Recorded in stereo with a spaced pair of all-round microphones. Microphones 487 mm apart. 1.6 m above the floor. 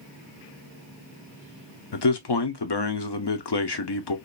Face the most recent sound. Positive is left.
turn(degrees=55)  # may be behind; listen again after turning